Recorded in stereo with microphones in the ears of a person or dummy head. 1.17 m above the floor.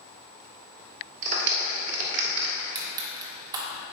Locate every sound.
1.2 s a clap: 45° right (ahead or behind), 1.8 m
2.6 s crushing: 20° right (ahead or behind), 1.5 m